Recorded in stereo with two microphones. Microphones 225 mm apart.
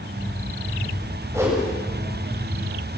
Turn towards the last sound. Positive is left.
turn(degrees=-15)  # may be behind; listen again after turning